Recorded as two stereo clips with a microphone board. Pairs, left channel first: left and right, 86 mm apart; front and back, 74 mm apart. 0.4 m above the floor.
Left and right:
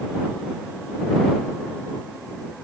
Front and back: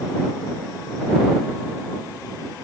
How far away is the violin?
I don't hear a violin.